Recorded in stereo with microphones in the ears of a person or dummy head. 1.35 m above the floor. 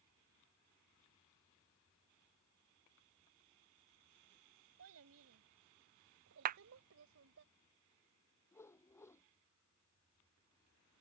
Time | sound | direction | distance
4.8 | a child speaking | 85° right | ?
6.5 | a clap | 55° right (ahead or behind) | ?
8.5 | a whoosh | 10° left (ahead or behind) | ?